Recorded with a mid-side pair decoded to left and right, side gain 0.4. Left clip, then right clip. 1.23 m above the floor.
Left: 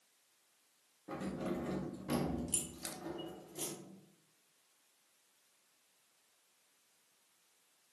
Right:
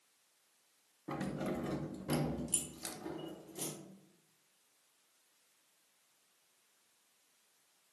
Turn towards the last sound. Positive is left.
turn(degrees=5)